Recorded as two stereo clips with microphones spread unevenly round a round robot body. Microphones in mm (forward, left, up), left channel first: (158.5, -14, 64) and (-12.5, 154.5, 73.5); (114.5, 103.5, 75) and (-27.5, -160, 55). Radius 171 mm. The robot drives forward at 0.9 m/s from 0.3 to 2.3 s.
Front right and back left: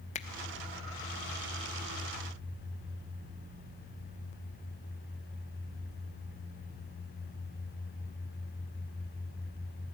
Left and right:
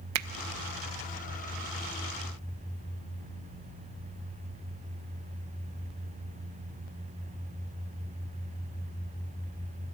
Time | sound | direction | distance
0.1 | a finger snap | 100° right | 0.6 m